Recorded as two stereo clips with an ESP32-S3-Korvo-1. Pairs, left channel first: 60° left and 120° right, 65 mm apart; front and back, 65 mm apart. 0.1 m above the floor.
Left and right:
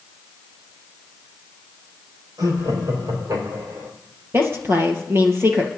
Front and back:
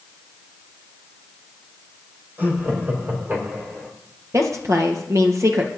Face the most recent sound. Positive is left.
turn(degrees=-160)